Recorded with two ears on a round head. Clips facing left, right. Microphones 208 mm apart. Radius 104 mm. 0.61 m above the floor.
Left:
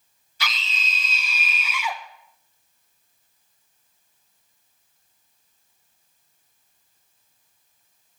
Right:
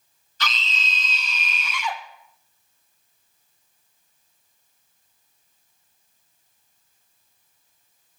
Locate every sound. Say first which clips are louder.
0.4 s a scream: right 2 dB; 10° left (ahead or behind), 0.6 m; by 2.0 s 5° left (ahead or behind), 1.2 m